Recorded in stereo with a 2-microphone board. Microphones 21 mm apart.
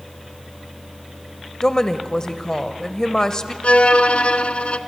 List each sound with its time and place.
1.6 s a woman speaking: 25° left (ahead or behind), 1.0 m
3.6 s a violin: 80° left, 0.8 m